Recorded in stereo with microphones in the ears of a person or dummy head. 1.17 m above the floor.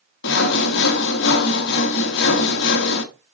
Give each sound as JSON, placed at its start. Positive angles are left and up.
{"t": 0.2, "sound": "sawing", "side_deg": 65, "distance_m": 1.3}